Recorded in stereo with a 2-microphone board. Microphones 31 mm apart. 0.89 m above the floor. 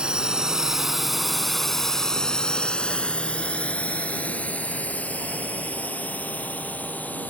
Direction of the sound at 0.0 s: 30° right (ahead or behind).